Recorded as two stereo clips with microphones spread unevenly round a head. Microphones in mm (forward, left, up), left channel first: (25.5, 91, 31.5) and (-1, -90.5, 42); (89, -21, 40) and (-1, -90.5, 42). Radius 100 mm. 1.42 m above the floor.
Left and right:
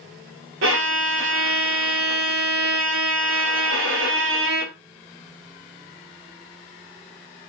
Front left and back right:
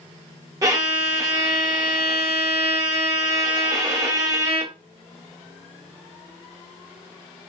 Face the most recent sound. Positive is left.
turn(degrees=-85)